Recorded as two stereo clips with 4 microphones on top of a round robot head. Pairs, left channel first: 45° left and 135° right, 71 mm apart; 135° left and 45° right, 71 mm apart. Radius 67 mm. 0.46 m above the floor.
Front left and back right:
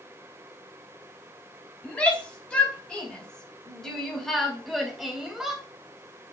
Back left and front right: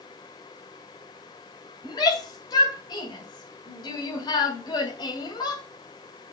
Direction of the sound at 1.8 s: 115° left.